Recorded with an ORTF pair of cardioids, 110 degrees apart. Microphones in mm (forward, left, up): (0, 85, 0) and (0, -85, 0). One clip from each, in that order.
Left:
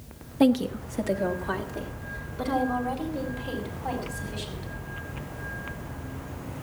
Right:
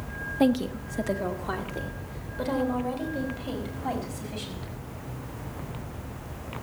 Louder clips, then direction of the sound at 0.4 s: Left 2 dB; 10° left.